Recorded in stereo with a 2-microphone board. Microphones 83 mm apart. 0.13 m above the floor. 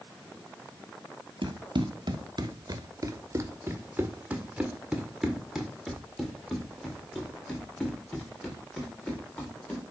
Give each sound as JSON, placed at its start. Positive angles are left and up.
{"t": 1.4, "sound": "running footsteps", "side_deg": -80, "distance_m": 1.4}